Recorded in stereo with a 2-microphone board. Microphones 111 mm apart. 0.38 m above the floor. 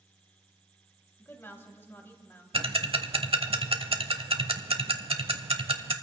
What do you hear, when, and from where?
1.2 s a woman speaking: 20° left (ahead or behind), 2 m
2.5 s ticking: 60° right (ahead or behind), 0.8 m